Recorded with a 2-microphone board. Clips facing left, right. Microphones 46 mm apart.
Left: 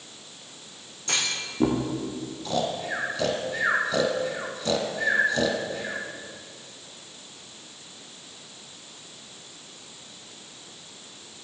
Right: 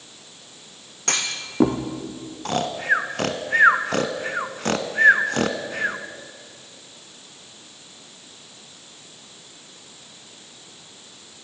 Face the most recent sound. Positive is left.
turn(degrees=-65)  # may be behind; listen again after turning